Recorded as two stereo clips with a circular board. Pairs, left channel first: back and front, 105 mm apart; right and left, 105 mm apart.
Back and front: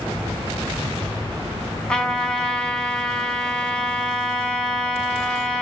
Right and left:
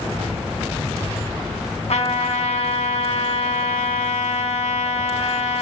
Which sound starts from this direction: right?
A trumpet, at 1.9 s.